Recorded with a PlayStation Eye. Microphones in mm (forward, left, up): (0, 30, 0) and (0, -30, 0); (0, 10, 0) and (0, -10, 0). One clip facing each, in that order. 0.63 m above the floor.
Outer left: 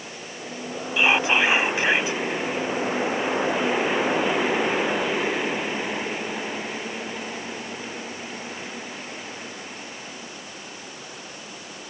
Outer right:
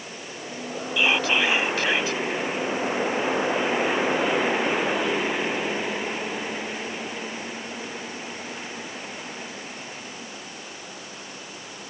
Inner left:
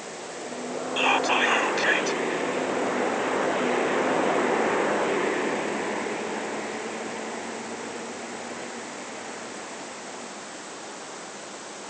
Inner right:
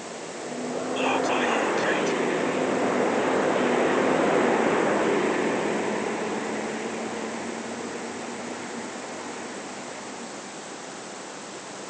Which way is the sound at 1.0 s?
25° left (ahead or behind).